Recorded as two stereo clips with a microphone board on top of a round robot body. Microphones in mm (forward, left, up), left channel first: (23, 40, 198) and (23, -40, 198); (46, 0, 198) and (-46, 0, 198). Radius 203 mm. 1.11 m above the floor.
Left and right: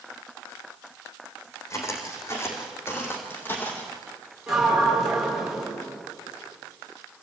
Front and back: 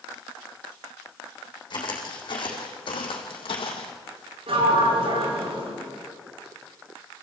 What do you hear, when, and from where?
1.7 s footsteps: 40° left, 3.5 m; by 3.9 s 25° left, 2.5 m
4.5 s a sliding door: 175° right, 5 m